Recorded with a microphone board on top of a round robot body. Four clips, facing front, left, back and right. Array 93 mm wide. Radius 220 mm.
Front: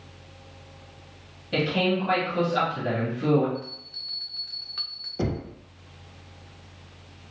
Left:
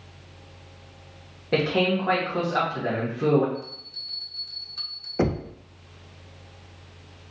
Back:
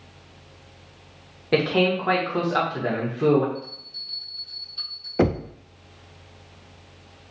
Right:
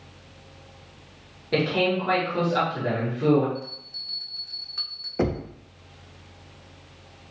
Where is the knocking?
170° left, 0.5 m.